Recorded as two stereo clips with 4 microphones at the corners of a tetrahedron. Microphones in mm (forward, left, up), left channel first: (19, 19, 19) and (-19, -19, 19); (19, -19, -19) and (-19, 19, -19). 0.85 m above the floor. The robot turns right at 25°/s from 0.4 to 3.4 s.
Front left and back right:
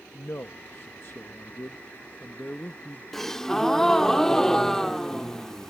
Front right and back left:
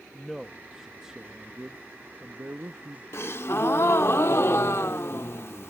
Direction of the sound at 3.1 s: 35° right.